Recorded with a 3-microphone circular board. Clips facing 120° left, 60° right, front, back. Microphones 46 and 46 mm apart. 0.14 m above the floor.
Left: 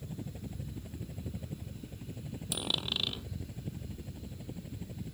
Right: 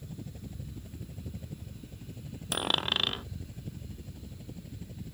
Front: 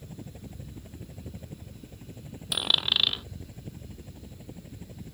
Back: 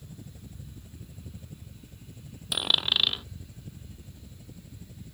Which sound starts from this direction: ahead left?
A helicopter, at 0.0 s.